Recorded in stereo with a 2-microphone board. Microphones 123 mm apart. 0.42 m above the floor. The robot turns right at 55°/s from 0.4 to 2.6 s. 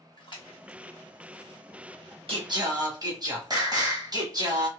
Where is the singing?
50° right (ahead or behind), 1.2 m; by 4.7 s 30° right (ahead or behind), 1.2 m.